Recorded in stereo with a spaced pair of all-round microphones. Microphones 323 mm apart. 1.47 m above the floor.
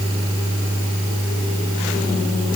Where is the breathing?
No breathing in this recording.